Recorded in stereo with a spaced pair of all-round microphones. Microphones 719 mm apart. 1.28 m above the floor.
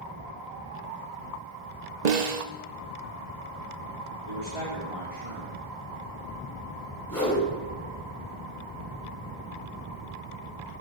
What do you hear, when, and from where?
2.0 s a snare drum: 70° right (ahead or behind), 1.0 m
4.3 s a man speaking: 50° right (ahead or behind), 3 m
7.1 s a whoosh: 25° left (ahead or behind), 5 m